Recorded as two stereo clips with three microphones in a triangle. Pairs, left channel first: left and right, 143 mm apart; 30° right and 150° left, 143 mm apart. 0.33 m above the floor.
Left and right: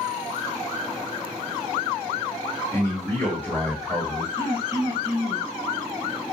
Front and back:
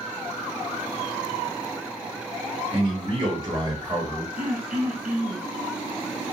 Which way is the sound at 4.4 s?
145° left.